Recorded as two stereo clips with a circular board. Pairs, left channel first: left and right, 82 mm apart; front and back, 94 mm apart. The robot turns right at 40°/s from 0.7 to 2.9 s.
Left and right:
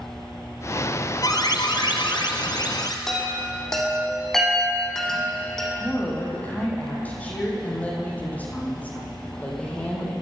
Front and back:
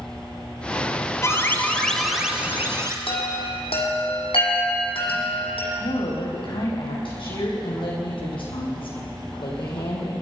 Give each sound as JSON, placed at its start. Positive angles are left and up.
{"t": 1.2, "sound": "an alarm", "azimuth_deg": 55, "distance_m": 2.5}
{"t": 3.1, "sound": "a chime", "azimuth_deg": 5, "distance_m": 5.5}
{"t": 5.8, "sound": "a woman speaking", "azimuth_deg": 20, "distance_m": 7.0}